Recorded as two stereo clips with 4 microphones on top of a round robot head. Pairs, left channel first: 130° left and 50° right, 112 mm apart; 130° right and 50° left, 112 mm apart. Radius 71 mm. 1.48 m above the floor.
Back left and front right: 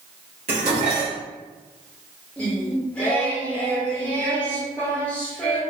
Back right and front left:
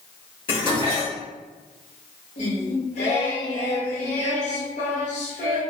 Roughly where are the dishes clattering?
Right.